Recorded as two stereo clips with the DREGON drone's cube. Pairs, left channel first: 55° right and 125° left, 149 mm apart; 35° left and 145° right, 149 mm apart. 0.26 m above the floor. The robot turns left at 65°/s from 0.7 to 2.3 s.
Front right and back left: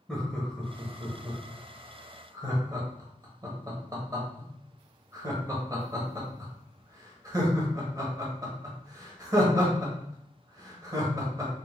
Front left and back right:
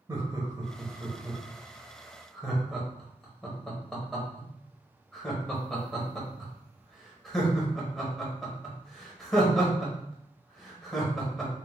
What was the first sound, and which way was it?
Laughter, 140° right.